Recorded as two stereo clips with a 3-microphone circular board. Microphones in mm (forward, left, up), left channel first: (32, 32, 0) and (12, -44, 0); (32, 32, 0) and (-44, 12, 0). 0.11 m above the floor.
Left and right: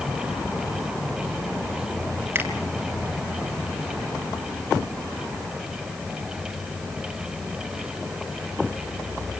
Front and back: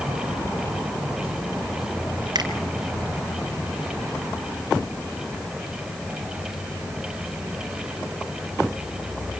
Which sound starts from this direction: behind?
A finger snap, at 2.4 s.